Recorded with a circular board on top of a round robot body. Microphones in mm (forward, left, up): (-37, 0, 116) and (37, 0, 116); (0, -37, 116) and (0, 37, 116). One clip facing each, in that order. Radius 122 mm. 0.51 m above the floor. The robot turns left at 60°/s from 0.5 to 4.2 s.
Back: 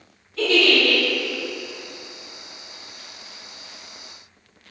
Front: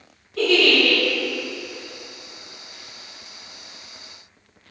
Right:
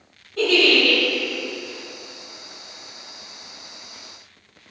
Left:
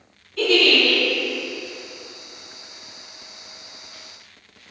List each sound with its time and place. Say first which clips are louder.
0.4 s a giggle: front 1 dB, even; 35° right, 1.5 m; by 1.0 s 65° right, 1.5 m